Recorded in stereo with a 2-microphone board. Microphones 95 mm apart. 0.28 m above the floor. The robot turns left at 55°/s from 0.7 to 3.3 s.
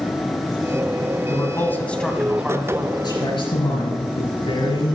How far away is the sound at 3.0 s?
About 5 m.